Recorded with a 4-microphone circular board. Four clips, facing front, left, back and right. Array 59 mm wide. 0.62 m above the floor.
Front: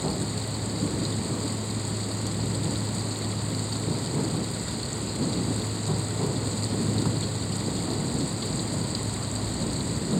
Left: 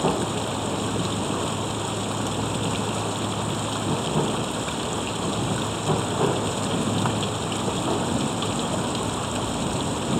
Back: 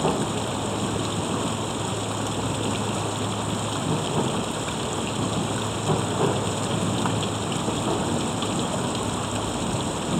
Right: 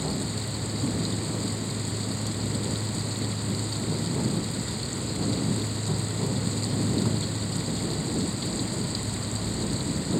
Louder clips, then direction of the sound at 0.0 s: Left 8 dB, back 6 dB; 130° left.